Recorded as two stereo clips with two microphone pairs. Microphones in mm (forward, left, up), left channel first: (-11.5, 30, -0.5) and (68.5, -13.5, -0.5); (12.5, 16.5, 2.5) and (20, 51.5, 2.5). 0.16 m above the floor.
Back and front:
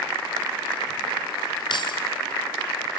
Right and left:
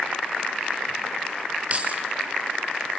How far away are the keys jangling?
About 2 m.